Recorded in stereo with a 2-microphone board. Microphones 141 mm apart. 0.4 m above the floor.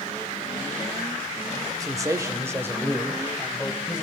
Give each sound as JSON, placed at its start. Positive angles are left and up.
{"t": 1.8, "sound": "a man speaking", "side_deg": -25, "distance_m": 1.5}